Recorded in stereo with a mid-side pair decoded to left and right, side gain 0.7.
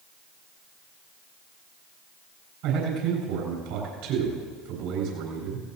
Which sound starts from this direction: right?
A man speaking, at 2.6 s.